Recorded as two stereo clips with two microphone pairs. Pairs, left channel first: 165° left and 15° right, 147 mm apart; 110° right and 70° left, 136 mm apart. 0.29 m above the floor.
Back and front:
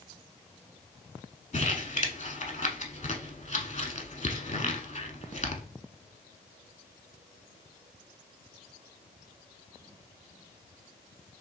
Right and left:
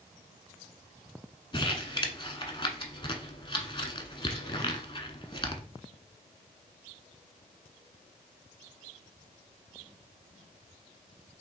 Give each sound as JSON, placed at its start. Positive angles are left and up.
{"t": 1.5, "sound": "crumpling", "azimuth_deg": -165, "distance_m": 0.8}